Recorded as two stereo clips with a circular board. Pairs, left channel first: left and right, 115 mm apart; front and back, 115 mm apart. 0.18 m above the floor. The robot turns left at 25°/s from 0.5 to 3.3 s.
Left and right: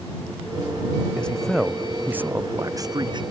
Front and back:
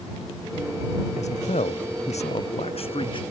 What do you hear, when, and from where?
1.2 s a man speaking: 10° left; by 3.2 s 40° right